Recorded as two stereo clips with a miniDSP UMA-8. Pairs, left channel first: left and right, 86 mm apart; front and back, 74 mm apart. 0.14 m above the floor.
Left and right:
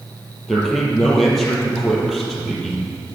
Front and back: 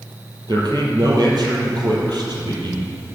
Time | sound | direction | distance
0.5 | a man speaking | straight behind | 3.5 m